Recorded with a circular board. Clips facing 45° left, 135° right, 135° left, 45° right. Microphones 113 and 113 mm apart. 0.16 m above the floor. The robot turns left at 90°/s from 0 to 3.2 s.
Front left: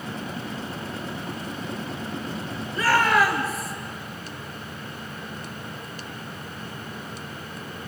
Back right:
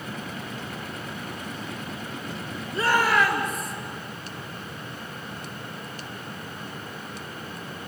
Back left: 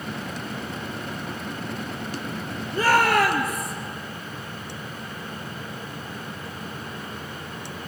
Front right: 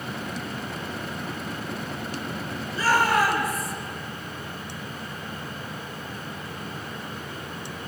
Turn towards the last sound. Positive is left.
turn(degrees=130)